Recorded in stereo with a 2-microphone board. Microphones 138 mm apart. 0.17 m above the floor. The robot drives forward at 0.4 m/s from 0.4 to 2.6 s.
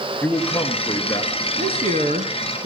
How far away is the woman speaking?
About 2 m.